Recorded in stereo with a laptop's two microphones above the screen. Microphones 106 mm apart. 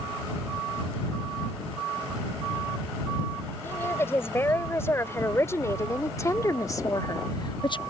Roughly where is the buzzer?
I don't hear a buzzer.